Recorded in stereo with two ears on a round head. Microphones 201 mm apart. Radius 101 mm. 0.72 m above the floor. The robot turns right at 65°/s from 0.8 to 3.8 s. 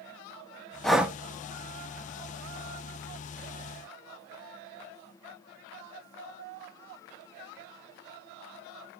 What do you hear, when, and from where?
0.8 s breathing: 5° left (ahead or behind), 0.6 m; by 1.2 s 10° right (ahead or behind), 0.6 m